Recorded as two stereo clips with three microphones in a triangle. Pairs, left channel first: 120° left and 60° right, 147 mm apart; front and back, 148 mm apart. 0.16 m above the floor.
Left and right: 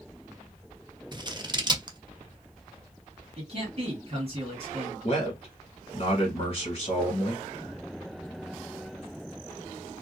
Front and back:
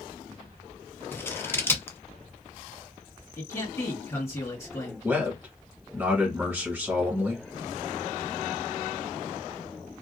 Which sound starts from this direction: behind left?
A man speaking, at 5.0 s.